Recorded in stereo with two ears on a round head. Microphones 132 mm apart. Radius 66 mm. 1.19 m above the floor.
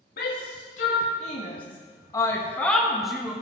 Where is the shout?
65° left (ahead or behind), 2 m; by 3.3 s 5° right (ahead or behind), 2.0 m.